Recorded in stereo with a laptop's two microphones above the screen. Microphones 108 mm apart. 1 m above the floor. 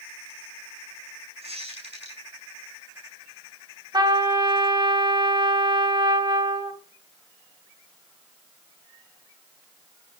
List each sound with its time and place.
1.4 s a squeak: 75° right (ahead or behind), 7 m
3.9 s a trumpet: 45° right (ahead or behind), 3 m